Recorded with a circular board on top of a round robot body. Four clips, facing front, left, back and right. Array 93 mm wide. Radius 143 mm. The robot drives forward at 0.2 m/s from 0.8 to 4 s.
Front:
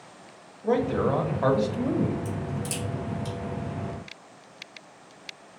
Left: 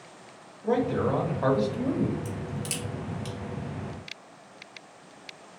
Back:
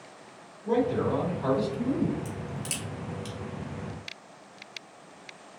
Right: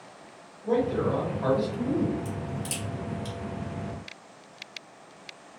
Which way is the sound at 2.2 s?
120° left.